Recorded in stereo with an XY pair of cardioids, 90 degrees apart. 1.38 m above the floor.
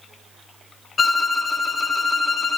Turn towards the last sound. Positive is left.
turn(degrees=35)